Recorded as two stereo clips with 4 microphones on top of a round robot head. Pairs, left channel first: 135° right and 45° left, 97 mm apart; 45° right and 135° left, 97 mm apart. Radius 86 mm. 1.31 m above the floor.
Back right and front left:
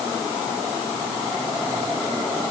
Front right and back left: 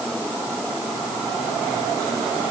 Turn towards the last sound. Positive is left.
No sound to turn to.